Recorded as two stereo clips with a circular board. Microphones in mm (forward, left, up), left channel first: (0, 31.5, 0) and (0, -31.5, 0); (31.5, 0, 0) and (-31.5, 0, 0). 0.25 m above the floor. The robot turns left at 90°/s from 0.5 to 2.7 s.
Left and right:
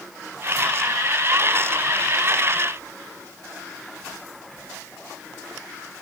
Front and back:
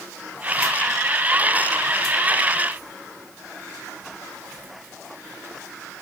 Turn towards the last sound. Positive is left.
No sound to turn to.